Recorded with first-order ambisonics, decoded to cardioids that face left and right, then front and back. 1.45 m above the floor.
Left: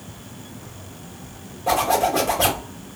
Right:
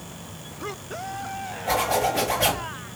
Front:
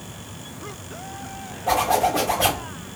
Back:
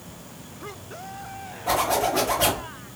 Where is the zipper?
100° left, 1.6 m.